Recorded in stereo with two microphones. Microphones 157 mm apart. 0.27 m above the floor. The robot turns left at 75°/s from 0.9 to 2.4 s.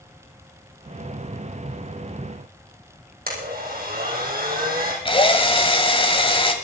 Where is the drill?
35° left (ahead or behind), 1.7 m.